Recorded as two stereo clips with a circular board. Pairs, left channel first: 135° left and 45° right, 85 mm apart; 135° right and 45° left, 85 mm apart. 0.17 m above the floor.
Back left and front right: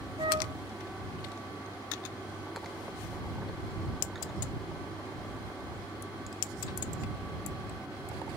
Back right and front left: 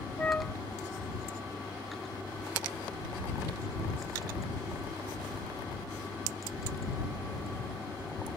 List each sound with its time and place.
0.2 s a flute: 60° right